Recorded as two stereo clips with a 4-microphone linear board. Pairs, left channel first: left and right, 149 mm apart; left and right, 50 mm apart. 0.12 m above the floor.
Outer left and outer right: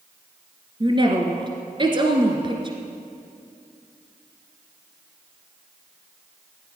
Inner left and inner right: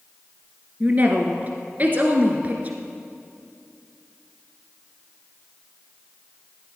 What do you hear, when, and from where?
0.8 s a woman speaking: 35° right (ahead or behind), 1.5 m